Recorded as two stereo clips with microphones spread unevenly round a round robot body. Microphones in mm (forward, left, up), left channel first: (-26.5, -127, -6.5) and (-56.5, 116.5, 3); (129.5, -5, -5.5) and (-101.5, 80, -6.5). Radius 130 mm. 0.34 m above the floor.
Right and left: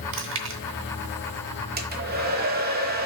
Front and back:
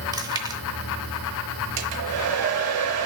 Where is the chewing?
90° left, 1.1 m.